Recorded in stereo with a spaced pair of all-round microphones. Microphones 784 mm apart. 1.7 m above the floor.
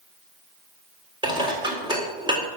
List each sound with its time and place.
1.2 s dishes clattering: 5° right (ahead or behind), 3.5 m